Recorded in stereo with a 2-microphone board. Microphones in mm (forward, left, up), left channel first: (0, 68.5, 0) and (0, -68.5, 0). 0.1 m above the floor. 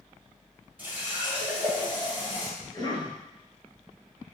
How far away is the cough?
About 1.6 m.